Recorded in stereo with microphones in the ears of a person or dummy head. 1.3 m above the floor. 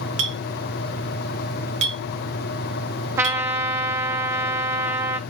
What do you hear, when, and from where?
0.2 s a clink: 35° right (ahead or behind), 0.8 m
3.2 s a trumpet: 15° right (ahead or behind), 0.6 m